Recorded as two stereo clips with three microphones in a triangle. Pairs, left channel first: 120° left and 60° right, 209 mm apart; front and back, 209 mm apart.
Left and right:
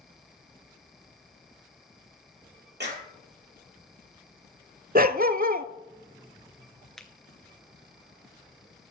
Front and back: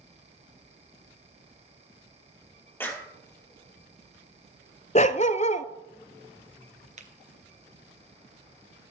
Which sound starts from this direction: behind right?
A finger snap, at 7.0 s.